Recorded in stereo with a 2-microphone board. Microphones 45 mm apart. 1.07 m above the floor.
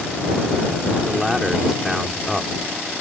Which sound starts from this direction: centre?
A man speaking, at 1.1 s.